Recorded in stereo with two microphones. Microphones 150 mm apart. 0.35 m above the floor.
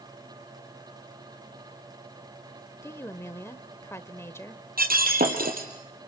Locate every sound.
2.8 s a woman speaking: 15° left (ahead or behind), 1.1 m
4.8 s breaking glass: 80° right, 4 m